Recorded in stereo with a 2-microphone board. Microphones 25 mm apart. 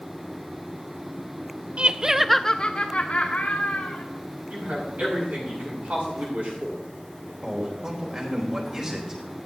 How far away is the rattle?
I don't hear a rattle.